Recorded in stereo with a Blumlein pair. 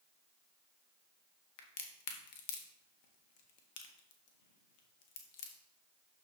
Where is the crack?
45° left, 1.4 m.